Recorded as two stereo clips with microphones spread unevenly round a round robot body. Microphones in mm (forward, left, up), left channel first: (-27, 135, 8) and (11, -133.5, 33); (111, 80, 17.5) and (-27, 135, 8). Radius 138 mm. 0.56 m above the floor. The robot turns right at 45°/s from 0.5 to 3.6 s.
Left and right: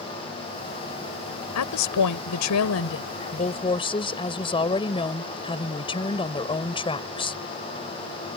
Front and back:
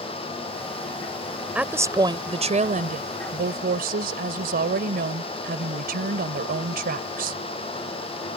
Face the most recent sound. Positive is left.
turn(degrees=170)